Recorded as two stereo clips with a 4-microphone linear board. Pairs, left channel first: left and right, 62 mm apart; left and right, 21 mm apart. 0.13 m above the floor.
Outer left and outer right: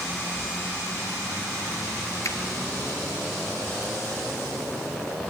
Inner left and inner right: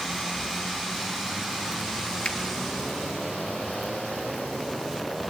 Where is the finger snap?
55° left (ahead or behind), 1.7 m.